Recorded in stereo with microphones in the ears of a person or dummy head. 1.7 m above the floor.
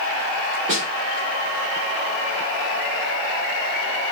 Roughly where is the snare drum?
Right.